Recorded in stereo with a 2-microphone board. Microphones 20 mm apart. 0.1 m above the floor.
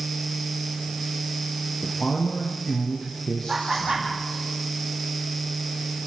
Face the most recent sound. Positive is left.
turn(degrees=-25)  # may be behind; listen again after turning